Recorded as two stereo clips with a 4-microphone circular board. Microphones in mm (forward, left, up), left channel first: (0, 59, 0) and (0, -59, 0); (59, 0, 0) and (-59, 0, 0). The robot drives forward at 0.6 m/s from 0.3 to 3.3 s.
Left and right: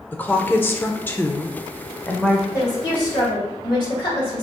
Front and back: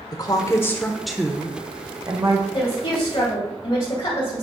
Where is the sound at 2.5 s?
40° left, 2.5 m; by 4.4 s 50° left, 2 m.